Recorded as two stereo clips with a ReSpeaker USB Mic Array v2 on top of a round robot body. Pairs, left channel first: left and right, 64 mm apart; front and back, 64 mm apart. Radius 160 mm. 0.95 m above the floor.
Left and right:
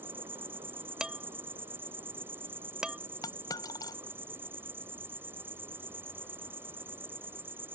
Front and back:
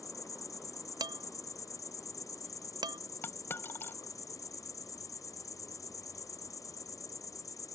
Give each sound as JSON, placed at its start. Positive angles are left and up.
{"t": 0.0, "sound": "an insect", "azimuth_deg": -35}
{"t": 1.0, "sound": "dishes clattering", "azimuth_deg": -170}
{"t": 3.2, "sound": "a dropped coin", "azimuth_deg": 60}